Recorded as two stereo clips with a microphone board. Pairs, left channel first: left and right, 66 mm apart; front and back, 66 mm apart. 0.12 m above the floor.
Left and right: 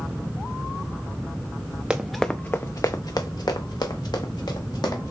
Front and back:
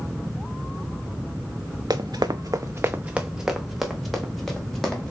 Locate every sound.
1.9 s running footsteps: 165° right, 0.6 m; by 5.1 s 80° left, 2.0 m